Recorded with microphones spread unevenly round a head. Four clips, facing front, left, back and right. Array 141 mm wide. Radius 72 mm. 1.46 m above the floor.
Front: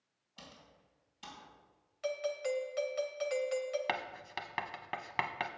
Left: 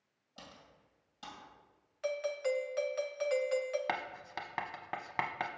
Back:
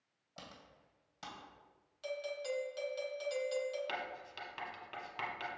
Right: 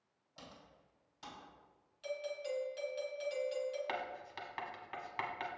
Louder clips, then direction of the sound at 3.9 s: Left 3 dB, front 4 dB; 55° left.